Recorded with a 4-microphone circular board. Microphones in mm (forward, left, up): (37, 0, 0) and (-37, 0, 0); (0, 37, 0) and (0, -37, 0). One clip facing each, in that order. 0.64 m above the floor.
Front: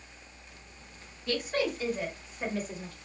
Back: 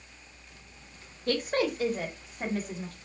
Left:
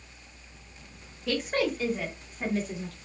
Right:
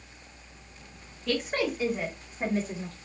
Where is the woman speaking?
175° left, 1.0 m; by 3.0 s 150° right, 1.7 m.